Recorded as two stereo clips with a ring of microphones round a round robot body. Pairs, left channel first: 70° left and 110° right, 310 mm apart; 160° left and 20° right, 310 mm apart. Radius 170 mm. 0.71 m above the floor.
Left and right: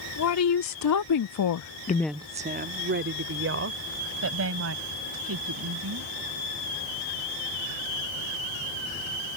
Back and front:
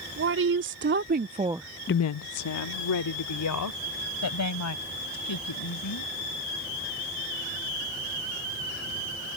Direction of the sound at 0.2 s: 30° left.